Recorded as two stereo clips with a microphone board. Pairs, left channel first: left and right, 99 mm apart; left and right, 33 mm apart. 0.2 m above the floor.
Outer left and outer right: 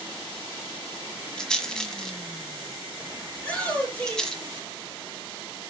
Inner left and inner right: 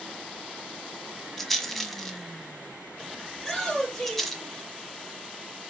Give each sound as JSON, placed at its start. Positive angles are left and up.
{"t": 1.4, "sound": "a rattle", "side_deg": 5, "distance_m": 1.5}
{"t": 3.3, "sound": "a shout", "side_deg": 10, "distance_m": 5.0}